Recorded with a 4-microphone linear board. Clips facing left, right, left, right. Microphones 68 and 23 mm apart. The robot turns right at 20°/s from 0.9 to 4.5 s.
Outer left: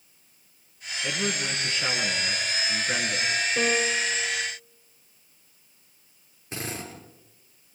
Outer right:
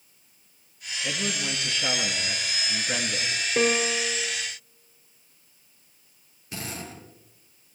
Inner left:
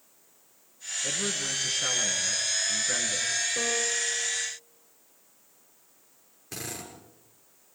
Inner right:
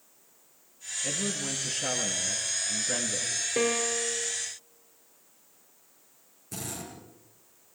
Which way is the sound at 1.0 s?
125° left.